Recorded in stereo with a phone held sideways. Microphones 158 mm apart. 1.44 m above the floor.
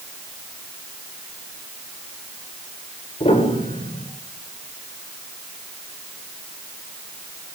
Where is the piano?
40° left (ahead or behind), 6.5 m.